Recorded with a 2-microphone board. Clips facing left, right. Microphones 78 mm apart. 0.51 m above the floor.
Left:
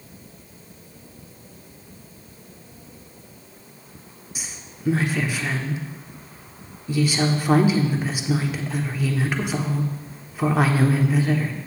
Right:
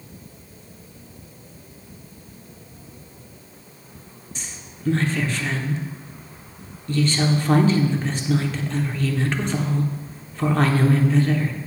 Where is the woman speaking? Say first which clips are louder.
Left 1 dB; 10° left (ahead or behind), 0.8 m.